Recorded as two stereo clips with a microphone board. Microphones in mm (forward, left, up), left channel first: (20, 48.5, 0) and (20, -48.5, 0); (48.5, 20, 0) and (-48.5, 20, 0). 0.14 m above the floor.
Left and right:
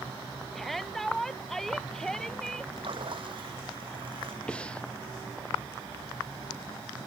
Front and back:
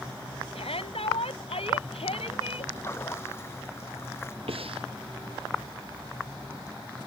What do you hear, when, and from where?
0.6 s a shout: straight ahead; by 2.7 s 5° left
2.8 s a splash: 60° right
4.5 s breathing: 170° left